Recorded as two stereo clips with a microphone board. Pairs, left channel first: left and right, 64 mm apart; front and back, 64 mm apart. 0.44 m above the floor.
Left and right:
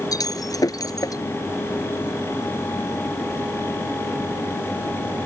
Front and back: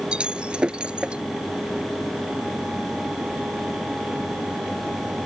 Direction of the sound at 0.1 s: 105° left.